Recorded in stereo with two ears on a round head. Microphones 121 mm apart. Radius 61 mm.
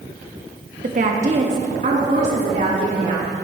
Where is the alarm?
No alarm in this recording.